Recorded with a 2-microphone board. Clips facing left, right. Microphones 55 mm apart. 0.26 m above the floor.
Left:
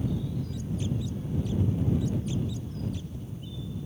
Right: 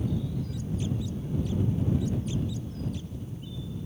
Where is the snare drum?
I don't hear a snare drum.